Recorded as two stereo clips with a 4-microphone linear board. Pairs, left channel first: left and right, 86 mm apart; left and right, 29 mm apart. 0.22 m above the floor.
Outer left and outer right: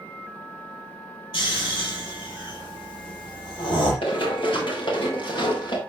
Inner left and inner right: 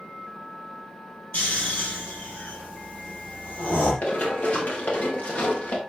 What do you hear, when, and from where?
1.3 s snoring: 70° left (ahead or behind), 6 m
4.0 s running footsteps: 80° left, 5.5 m; by 5.8 s 70° left (ahead or behind), 4.5 m